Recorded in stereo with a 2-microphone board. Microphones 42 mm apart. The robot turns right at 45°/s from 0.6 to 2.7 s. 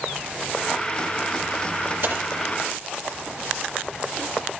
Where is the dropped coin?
60° right (ahead or behind), 5.5 m; by 2.3 s 75° right (ahead or behind), 5.5 m.